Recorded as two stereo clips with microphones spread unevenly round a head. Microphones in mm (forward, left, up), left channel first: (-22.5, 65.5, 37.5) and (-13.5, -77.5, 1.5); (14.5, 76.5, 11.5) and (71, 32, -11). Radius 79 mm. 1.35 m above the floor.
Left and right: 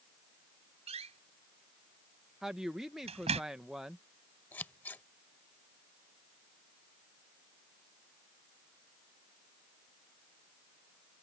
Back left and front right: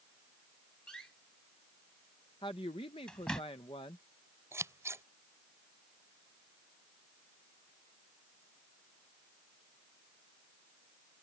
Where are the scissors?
15° left.